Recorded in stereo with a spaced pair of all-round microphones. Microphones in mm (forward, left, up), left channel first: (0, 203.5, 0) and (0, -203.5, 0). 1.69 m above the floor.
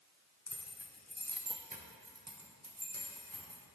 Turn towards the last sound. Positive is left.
turn(degrees=-60)  # may be behind; listen again after turning